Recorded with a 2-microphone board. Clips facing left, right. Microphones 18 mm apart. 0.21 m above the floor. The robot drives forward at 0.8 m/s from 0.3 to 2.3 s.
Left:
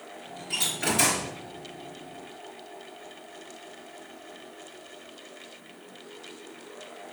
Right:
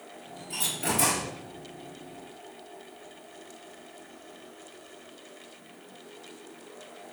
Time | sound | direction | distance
0.5 | a door slam | 50° left (ahead or behind) | 3 m